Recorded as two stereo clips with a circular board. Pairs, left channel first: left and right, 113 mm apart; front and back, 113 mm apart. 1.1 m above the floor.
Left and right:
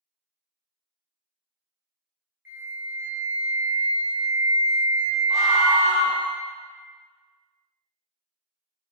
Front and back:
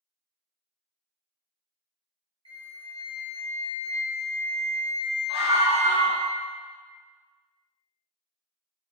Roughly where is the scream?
Right.